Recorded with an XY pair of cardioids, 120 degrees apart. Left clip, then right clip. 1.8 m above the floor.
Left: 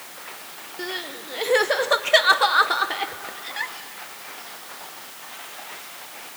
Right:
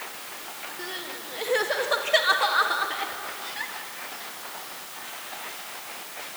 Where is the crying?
35° left, 1.3 m.